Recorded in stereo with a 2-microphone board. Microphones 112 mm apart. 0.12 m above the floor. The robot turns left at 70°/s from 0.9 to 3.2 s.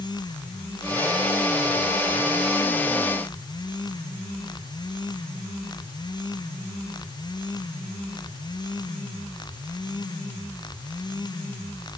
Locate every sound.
Only background noise.